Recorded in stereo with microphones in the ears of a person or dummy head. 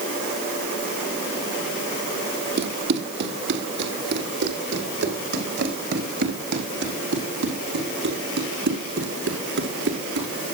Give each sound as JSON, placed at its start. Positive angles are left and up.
{"t": 2.6, "sound": "running footsteps", "side_deg": -60, "distance_m": 3.5}